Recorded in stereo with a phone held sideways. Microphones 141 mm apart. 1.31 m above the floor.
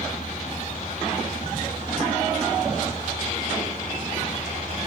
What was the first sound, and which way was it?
A helicopter, 65° left (ahead or behind).